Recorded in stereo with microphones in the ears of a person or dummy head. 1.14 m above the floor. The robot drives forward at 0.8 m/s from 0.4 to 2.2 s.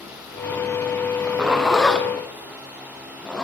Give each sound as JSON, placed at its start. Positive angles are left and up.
{"t": 1.2, "sound": "a zipper", "side_deg": -15, "distance_m": 0.6}